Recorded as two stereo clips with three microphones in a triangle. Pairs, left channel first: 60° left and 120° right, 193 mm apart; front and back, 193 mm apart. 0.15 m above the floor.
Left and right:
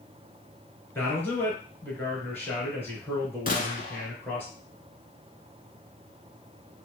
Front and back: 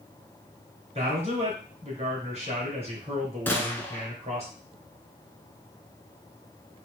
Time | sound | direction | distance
0.9 | a man speaking | 135° left | 2 m
3.5 | a gunshot | 75° left | 0.8 m